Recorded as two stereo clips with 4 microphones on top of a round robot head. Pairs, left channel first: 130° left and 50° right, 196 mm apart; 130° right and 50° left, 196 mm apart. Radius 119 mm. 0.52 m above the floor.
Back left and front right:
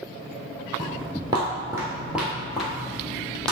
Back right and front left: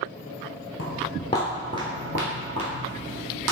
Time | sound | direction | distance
0.8 | footsteps | 120° right | 0.7 m